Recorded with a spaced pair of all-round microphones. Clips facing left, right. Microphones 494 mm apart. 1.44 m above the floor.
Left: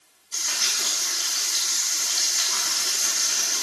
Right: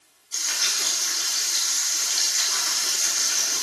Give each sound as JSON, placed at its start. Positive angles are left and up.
{"t": 0.3, "sound": "frying", "side_deg": 70, "distance_m": 10.0}